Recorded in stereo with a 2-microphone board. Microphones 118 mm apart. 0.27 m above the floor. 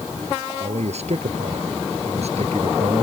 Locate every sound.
0.6 s a man speaking: 65° right (ahead or behind); by 3.0 s 60° right (ahead or behind)